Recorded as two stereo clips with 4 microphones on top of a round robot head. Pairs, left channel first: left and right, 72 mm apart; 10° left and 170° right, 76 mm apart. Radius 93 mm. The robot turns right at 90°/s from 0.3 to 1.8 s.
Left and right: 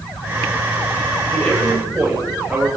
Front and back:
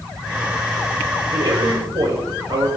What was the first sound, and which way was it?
A man speaking, 155° left.